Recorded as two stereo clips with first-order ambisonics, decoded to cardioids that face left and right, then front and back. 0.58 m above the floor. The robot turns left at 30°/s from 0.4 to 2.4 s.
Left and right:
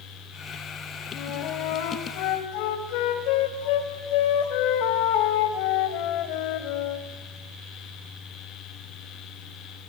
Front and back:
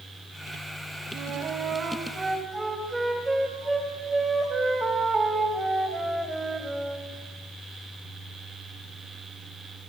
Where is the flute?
135° left, 2.5 m; by 7.1 s 95° left, 2.5 m.